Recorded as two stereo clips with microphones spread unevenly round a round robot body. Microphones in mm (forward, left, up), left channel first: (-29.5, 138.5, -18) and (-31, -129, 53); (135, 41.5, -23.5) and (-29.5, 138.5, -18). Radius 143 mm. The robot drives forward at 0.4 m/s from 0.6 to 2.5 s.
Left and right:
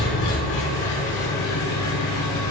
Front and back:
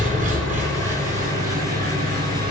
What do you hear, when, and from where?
0.0 s an engine running: 95° left, 4.5 m; by 2.5 s 105° left, 4.5 m